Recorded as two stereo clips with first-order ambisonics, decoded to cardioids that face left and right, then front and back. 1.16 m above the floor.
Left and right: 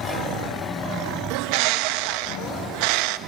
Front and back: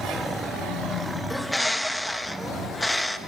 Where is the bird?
85° right, 0.7 m.